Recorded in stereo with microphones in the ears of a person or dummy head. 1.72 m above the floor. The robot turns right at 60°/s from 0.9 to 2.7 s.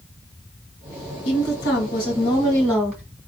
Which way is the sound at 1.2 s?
85° left.